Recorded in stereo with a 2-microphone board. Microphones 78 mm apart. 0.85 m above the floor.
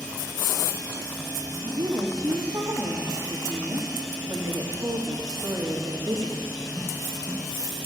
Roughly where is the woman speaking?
Right.